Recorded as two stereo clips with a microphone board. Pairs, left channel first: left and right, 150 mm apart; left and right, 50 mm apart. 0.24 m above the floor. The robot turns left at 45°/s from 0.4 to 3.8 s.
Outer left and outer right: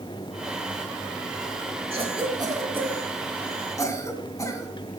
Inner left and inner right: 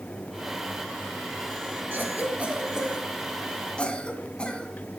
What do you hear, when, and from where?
1.9 s a cough: 45° right (ahead or behind), 2.5 m; by 4.7 s 25° left (ahead or behind), 2.5 m